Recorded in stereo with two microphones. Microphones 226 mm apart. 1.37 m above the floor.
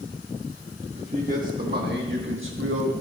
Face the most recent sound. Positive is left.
turn(degrees=-70)  # may be behind; listen again after turning